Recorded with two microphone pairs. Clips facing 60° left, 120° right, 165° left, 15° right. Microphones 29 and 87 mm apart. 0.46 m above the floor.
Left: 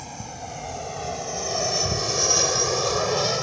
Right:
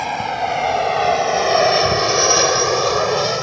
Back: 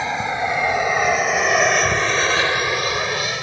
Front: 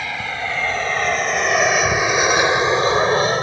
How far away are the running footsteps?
I don't hear running footsteps.